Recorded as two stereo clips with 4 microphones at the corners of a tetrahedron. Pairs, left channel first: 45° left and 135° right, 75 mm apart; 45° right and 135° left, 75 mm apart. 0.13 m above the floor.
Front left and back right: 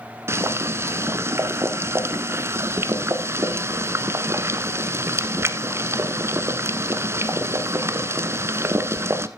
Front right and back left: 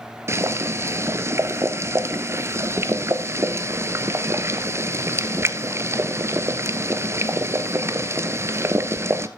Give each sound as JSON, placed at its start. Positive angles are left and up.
{"t": 0.3, "sound": "boiling", "azimuth_deg": 180, "distance_m": 0.9}